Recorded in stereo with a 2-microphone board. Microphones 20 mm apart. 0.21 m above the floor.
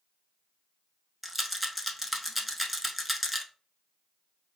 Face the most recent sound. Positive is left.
turn(degrees=-10)  # may be behind; listen again after turning